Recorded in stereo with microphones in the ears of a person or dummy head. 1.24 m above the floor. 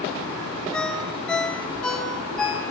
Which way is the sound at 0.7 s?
5° left (ahead or behind).